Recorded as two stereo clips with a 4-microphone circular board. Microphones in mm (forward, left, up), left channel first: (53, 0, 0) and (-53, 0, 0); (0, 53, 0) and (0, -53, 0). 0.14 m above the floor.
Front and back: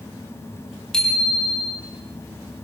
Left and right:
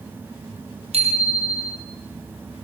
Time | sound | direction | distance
0.9 | a bicycle bell | 85° right | 3.5 m